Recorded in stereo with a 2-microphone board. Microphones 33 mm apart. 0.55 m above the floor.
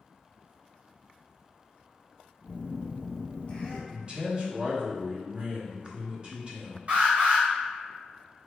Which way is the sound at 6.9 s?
45° right (ahead or behind).